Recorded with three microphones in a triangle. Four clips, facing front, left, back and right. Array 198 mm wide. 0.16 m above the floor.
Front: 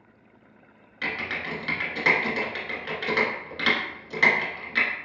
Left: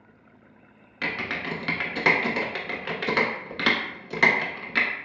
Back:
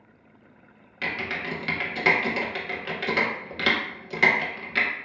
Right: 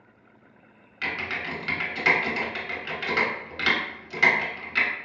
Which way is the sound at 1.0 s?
115° left.